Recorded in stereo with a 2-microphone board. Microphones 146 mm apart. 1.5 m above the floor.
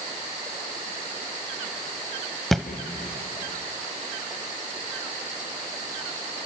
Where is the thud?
Centre (ahead or behind), 1.4 m.